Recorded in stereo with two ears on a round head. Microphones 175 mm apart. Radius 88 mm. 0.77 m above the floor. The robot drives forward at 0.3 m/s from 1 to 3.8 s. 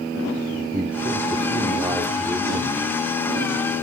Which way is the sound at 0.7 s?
20° right (ahead or behind).